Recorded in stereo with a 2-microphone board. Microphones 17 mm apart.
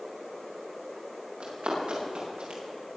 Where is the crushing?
I don't hear crushing.